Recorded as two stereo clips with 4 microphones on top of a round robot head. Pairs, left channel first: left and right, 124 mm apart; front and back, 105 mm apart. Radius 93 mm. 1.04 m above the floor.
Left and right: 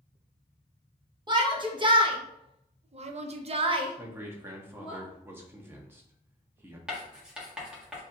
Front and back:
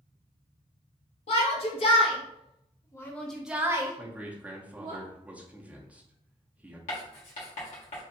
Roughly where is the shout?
Ahead right.